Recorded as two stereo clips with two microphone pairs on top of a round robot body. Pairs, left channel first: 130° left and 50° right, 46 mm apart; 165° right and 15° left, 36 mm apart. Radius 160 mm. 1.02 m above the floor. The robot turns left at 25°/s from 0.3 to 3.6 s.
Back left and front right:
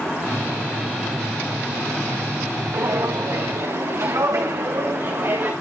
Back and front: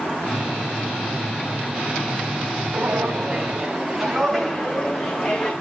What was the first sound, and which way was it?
Footsteps, 20° right.